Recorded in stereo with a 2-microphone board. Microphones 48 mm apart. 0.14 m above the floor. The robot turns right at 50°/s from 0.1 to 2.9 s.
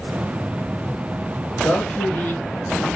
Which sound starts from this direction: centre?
A man speaking, at 1.6 s.